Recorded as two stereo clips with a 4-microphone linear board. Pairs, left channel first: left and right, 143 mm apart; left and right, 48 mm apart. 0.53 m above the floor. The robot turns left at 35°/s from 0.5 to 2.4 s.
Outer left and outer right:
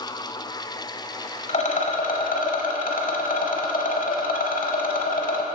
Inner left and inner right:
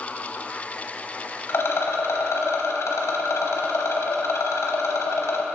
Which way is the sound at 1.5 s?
125° left.